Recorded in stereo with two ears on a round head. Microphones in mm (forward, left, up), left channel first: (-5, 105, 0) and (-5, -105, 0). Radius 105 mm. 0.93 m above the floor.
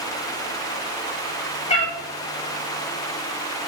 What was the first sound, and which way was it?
A cat meowing, 25° left (ahead or behind).